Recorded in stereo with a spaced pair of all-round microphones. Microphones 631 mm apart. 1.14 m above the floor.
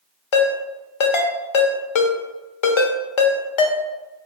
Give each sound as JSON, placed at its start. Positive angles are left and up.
{"t": 0.3, "sound": "a ringtone", "side_deg": 50, "distance_m": 0.5}